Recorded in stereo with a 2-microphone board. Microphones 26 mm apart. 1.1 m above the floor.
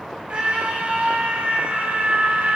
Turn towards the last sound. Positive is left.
turn(degrees=-75)  # may be behind; listen again after turning